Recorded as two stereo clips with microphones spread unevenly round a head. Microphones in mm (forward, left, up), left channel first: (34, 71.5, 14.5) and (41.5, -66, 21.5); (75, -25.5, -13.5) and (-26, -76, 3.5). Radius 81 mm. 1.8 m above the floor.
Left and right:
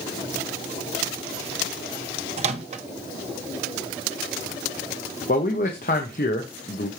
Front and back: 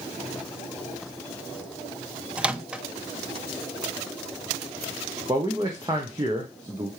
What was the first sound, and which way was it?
A microwave, 85° right.